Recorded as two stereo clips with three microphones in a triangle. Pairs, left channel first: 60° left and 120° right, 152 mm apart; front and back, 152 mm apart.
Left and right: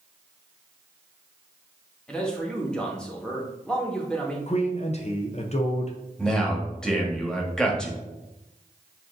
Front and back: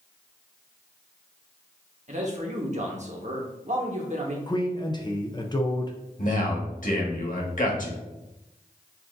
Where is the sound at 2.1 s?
145° left, 1.1 m.